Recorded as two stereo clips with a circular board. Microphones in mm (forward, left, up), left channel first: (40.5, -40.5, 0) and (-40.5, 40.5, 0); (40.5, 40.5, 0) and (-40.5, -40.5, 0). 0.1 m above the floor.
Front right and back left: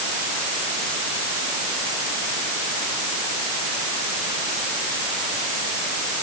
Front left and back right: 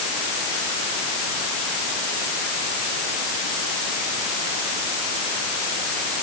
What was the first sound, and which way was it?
Only background noise.